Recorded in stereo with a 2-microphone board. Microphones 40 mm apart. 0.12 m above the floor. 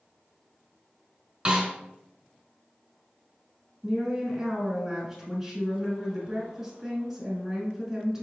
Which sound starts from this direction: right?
A snare drum, at 1.4 s.